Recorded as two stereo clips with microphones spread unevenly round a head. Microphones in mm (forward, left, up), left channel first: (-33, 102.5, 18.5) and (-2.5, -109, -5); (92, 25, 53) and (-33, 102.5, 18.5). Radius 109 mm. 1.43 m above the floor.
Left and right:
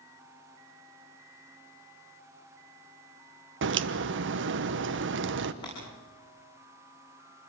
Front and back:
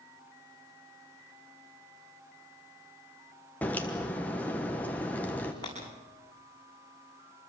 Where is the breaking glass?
25° left, 9.5 m.